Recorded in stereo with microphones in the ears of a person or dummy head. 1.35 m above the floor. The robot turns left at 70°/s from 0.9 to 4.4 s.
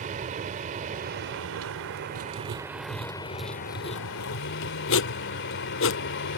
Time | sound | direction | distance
0.0 | a vehicle | 45° right | ?
2.1 | writing | 70° right (ahead or behind) | ?